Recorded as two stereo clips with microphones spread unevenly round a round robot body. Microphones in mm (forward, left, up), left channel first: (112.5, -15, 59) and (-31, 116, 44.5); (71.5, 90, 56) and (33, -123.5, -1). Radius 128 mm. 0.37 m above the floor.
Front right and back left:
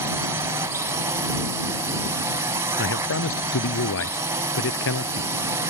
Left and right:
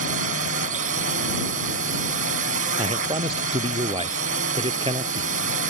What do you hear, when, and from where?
0.0 s a drone: 145° right
2.8 s a man speaking: 35° right